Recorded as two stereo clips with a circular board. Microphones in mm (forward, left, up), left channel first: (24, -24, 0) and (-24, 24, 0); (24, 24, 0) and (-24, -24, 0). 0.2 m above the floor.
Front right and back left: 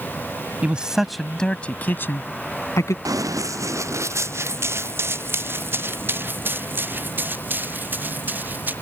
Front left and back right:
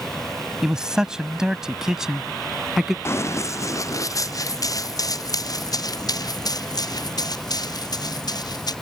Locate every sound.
0.6 s a man speaking: 160° left; by 3.0 s 50° right
3.0 s running footsteps: 95° left; by 8.7 s 70° left